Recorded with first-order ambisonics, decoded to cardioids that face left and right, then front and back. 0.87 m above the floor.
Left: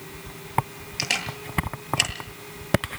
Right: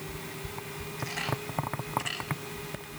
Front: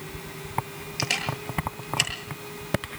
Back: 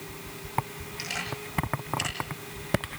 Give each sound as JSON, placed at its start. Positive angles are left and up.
{"t": 1.0, "sound": "a camera shutter", "azimuth_deg": 60, "distance_m": 8.5}